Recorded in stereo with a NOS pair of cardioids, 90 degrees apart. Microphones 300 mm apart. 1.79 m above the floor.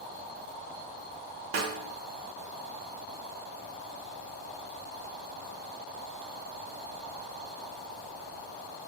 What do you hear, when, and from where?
1.5 s a snare drum: 45° right, 0.8 m